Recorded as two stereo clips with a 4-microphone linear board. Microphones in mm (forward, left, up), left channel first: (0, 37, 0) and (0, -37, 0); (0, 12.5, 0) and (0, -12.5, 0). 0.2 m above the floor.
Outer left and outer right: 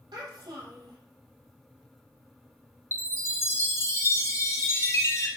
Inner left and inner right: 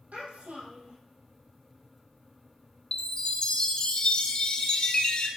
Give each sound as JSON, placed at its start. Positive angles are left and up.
{"t": 0.1, "sound": "a child speaking", "side_deg": -75, "distance_m": 3.5}
{"t": 2.9, "sound": "a chime", "side_deg": 40, "distance_m": 1.5}